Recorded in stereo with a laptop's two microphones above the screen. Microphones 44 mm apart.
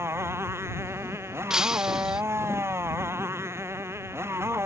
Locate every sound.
0.0 s a motorcycle: 80° right
1.5 s breaking glass: 10° right (ahead or behind)